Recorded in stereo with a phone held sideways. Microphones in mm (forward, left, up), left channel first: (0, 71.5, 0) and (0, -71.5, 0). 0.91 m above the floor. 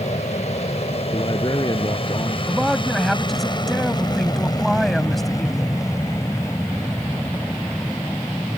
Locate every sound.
0.0 s an aircraft: 50° left (ahead or behind); by 8.6 s 10° left (ahead or behind)
1.1 s a man speaking: 30° left (ahead or behind)
2.5 s a man speaking: centre (ahead or behind)